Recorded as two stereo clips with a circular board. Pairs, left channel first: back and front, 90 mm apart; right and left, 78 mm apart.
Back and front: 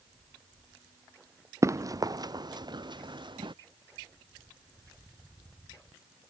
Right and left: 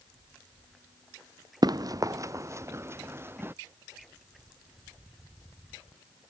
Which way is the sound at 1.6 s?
55° left.